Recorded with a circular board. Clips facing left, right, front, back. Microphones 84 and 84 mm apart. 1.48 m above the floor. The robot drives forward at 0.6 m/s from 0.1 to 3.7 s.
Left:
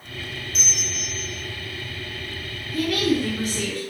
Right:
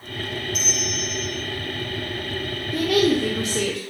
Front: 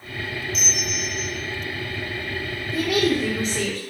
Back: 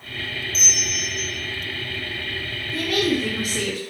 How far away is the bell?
About 0.8 m.